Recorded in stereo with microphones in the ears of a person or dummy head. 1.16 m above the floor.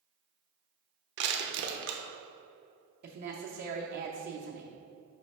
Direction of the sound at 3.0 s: 45° right (ahead or behind).